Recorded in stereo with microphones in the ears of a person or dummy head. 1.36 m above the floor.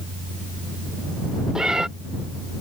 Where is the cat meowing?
Centre (ahead or behind).